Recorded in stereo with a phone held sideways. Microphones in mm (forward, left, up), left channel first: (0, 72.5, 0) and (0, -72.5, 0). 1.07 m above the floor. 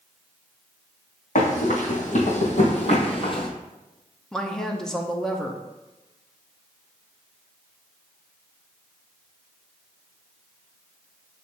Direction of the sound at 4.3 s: 5° left (ahead or behind).